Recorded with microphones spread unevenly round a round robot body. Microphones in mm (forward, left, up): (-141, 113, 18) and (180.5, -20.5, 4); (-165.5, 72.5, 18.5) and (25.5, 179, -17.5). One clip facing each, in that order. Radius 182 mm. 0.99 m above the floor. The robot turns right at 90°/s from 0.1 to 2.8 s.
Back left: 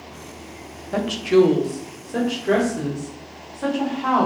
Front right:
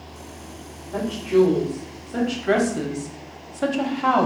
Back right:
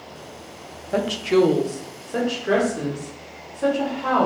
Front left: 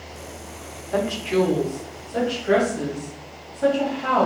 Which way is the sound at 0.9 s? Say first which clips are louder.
Back left 3 dB, back right 3 dB; 140° left.